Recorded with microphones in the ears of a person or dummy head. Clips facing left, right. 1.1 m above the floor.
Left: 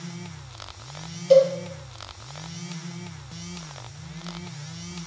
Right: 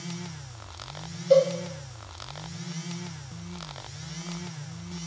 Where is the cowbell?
55° left (ahead or behind), 3.5 m.